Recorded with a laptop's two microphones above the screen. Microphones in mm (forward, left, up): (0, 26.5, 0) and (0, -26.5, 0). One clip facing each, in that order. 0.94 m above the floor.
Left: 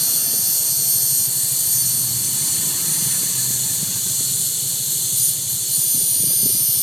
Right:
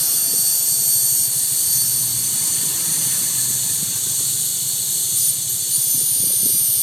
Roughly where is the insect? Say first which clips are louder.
Even; left.